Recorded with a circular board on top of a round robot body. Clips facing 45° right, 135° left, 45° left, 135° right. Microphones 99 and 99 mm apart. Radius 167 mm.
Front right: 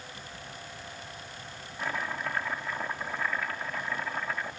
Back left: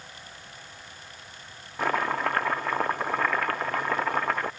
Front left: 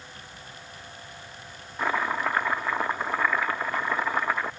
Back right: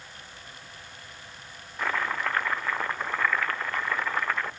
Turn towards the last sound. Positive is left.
turn(degrees=120)